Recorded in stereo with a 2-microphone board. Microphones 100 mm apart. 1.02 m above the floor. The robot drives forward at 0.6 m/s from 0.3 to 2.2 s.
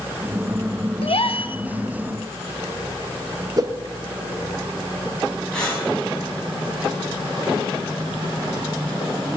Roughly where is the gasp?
Left.